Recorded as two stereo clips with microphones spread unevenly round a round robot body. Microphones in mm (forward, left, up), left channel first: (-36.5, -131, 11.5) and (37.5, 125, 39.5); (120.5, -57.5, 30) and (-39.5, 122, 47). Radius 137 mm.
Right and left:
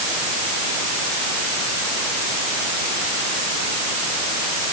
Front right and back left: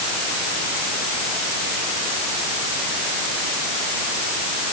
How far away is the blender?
I don't hear a blender.